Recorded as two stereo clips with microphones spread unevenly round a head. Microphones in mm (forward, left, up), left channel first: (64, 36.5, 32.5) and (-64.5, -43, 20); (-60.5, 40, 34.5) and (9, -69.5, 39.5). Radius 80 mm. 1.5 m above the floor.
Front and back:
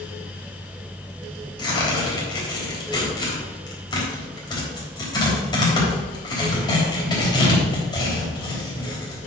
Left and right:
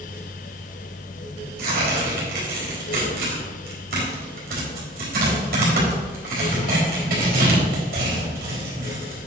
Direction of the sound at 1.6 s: 30° right.